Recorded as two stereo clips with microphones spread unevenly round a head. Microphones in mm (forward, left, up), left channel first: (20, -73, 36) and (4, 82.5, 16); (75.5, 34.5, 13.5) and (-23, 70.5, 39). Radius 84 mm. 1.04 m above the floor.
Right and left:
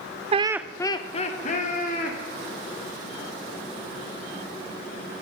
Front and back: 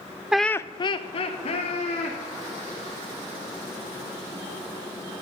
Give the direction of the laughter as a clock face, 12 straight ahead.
10 o'clock.